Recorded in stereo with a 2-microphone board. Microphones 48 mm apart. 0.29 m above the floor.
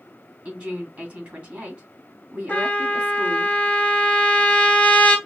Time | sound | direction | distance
0.5 | a woman speaking | 35° right (ahead or behind) | 2.5 m
2.5 | a trumpet | 30° left (ahead or behind) | 1.5 m